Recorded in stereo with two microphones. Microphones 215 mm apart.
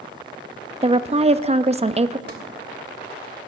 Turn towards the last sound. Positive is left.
turn(degrees=-50)  # may be behind; listen again after turning